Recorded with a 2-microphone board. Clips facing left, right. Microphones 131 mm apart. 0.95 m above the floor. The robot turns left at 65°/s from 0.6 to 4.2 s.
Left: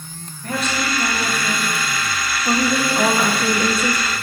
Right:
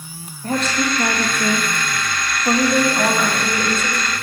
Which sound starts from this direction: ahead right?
A woman speaking, at 0.4 s.